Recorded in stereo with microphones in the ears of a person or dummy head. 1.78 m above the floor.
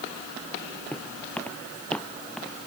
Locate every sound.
0.9 s footsteps: 10° left (ahead or behind); by 2.7 s 5° left (ahead or behind)